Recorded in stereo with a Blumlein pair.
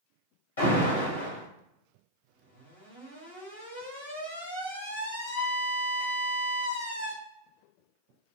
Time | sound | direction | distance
0.6 | an alarm | 70° left | 2.5 m